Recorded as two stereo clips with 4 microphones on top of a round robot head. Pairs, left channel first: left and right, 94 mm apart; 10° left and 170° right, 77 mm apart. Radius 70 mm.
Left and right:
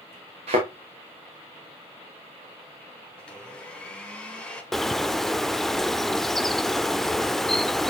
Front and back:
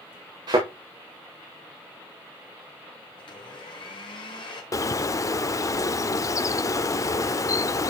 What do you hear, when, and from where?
0.5 s a thud: 125° right, 6 m
3.2 s a blender: 10° left, 2.5 m
4.7 s a bird: 5° left, 0.7 m